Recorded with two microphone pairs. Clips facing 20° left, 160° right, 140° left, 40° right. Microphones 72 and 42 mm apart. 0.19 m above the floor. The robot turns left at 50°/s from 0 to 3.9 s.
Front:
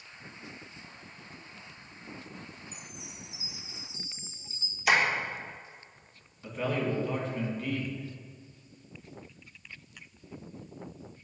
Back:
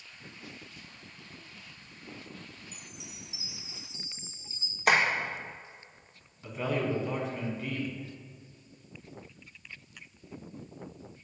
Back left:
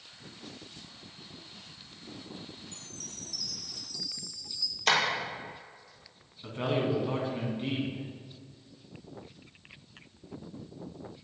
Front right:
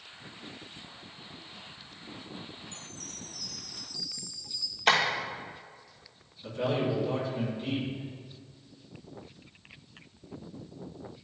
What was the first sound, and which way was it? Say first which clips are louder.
A chime: front 2 dB, front right 2 dB; 60° right.